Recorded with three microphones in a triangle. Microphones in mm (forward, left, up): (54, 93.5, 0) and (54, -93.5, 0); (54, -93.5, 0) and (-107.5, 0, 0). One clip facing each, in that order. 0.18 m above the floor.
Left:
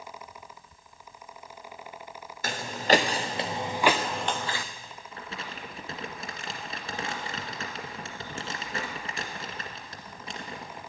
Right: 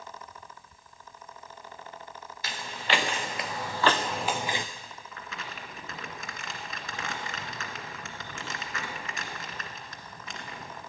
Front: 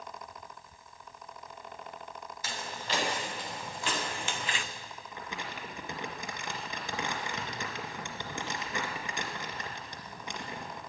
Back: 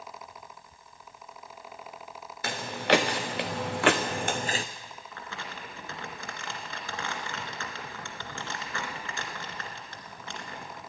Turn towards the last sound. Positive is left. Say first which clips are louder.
# left 3 dB, front 1 dB
turn(degrees=40)